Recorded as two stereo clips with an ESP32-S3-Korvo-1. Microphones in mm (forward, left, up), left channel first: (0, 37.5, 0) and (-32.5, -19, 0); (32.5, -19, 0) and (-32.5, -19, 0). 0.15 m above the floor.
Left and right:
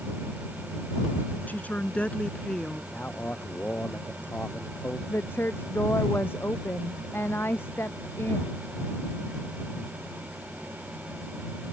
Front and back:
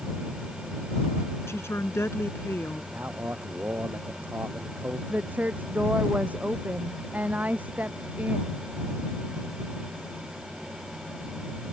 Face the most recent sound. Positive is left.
turn(degrees=115)